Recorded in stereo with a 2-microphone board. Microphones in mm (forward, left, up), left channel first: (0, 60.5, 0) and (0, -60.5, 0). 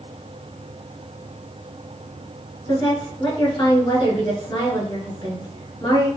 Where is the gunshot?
I don't hear a gunshot.